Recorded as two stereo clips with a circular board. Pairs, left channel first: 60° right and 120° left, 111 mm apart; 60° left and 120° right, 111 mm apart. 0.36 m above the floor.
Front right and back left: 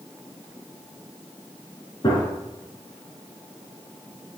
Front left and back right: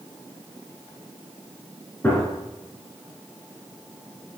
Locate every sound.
2.0 s a gunshot: 15° right, 3.5 m